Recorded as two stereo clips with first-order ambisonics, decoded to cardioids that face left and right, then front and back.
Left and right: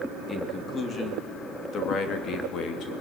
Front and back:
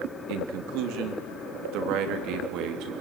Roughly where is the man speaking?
Behind.